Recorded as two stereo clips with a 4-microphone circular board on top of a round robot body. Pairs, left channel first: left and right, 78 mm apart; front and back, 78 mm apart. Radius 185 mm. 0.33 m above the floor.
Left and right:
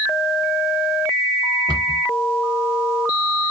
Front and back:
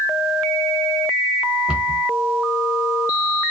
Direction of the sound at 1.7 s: 100° right.